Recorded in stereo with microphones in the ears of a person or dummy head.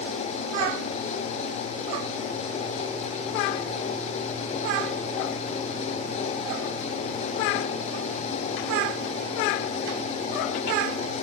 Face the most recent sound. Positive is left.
No sound to turn to.